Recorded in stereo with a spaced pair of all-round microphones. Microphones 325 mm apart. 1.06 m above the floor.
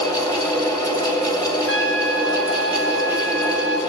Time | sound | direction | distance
0.0 | a fan | 10° left (ahead or behind) | 2 m
1.7 | a trumpet | 40° left (ahead or behind) | 3.5 m